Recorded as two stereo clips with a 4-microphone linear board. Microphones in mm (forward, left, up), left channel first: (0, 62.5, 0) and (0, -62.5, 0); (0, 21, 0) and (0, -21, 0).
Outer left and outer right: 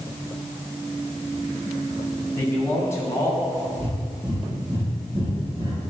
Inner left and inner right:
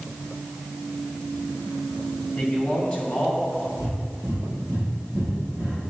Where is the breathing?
45° right (ahead or behind), 3 m.